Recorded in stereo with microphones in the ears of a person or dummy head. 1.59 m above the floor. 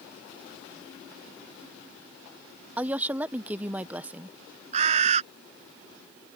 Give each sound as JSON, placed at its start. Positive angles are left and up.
{"t": 2.8, "sound": "a woman speaking", "side_deg": -10}
{"t": 4.7, "sound": "a bird", "side_deg": -40}